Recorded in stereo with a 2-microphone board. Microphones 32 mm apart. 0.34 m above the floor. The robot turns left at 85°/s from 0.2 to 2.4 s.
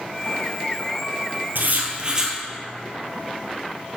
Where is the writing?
105° right, 1.4 m; by 2.4 s 170° right, 1.4 m.